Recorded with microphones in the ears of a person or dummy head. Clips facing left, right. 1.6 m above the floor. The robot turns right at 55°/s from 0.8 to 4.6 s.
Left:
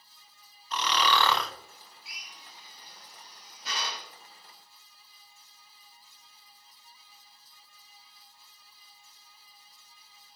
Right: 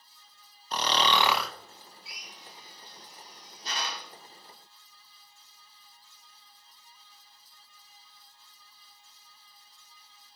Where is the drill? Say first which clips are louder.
Right 3 dB; 60° left (ahead or behind), 1.5 m; by 4.1 s 55° right (ahead or behind), 1.5 m.